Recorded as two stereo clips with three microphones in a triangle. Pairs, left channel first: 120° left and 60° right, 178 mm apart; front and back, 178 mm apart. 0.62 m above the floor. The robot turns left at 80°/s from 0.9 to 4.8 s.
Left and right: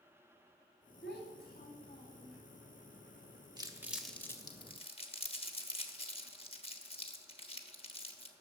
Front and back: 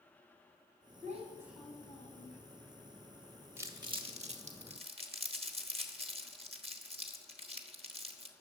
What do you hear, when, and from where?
1.0 s a child speaking: 135° left, 2.5 m; by 2.4 s 25° left, 2.5 m
3.6 s crumpling: 110° right, 1.1 m; by 8.3 s 150° left, 1.1 m